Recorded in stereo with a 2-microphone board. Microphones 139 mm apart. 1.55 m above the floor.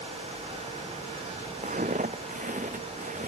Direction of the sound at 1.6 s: 65° right (ahead or behind).